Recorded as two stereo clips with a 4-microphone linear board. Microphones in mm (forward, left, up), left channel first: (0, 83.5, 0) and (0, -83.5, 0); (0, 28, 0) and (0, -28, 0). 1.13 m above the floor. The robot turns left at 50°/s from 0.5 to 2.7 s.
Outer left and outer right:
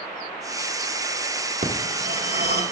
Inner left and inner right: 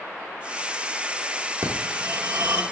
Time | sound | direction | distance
1.6 | a phone ringing | 65° right | 2.5 m